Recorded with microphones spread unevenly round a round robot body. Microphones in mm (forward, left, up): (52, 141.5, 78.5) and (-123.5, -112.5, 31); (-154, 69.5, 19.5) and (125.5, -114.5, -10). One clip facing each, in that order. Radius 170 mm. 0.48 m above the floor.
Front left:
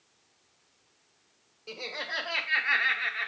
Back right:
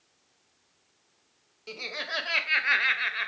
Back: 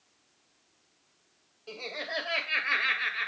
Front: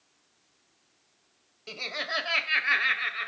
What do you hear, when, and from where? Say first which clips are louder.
1.7 s laughter: even, even; 70° right, 2.5 m; by 3.3 s 135° right, 2 m